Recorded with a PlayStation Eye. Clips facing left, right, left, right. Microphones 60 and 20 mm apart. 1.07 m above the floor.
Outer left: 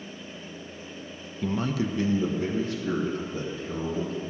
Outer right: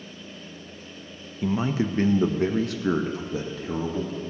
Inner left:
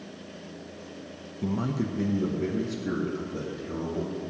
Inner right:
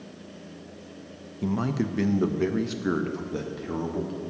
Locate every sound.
1.4 s a man speaking: 5° right (ahead or behind), 0.6 m; by 4.2 s 85° right, 1.7 m